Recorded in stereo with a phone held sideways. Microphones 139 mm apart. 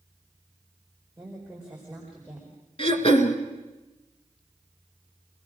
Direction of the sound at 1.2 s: Centre (ahead or behind).